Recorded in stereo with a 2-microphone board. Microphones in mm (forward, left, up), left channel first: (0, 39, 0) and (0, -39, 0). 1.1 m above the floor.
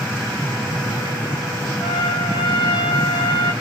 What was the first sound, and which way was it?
A trumpet, 75° left (ahead or behind).